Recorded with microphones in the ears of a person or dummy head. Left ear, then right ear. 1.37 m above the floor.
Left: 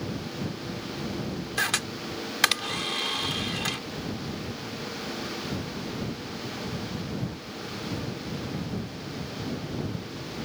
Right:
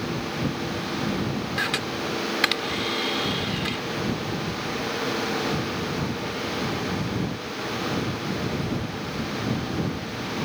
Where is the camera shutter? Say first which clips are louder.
Right 1 dB; 30° left (ahead or behind).